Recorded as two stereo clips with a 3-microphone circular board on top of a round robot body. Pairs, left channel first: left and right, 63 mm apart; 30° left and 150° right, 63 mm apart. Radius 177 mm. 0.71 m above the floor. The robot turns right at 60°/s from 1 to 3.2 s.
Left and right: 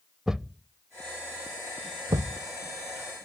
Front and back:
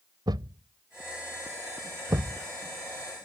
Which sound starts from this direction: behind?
A thud, at 0.3 s.